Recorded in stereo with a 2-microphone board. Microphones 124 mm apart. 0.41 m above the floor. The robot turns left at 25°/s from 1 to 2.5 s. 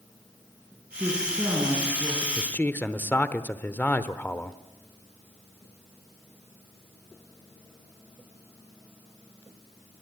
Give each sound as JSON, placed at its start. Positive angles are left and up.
{"t": 1.0, "sound": "a woman speaking", "azimuth_deg": -150, "distance_m": 5.0}
{"t": 2.4, "sound": "a man speaking", "side_deg": 15, "distance_m": 0.9}